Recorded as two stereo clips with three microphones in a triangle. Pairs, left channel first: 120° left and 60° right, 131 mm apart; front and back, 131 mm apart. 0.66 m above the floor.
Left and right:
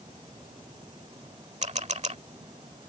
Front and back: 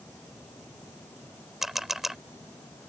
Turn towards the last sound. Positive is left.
turn(degrees=-90)